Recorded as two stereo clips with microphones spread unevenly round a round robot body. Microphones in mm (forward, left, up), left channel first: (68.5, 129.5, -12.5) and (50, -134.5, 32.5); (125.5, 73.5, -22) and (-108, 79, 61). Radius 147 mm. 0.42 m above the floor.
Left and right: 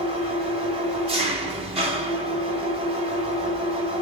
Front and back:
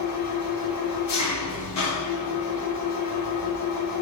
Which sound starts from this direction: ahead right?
An engine running, at 0.0 s.